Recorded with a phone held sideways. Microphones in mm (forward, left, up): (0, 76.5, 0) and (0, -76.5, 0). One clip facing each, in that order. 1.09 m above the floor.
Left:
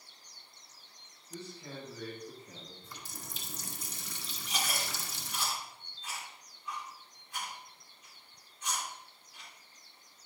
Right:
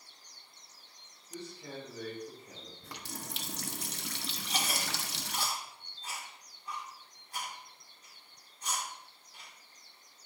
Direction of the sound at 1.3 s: 15° right (ahead or behind).